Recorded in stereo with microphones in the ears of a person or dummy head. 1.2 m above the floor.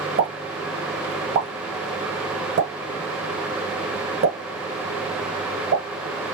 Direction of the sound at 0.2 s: 45° right (ahead or behind).